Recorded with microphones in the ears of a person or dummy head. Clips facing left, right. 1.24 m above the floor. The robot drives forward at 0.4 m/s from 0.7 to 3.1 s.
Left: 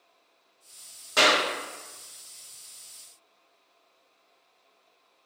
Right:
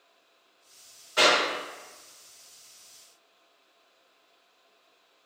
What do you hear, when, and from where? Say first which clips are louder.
1.2 s a clap: even; 70° left (ahead or behind), 1.3 m; by 1.4 s 65° left (ahead or behind), 1.4 m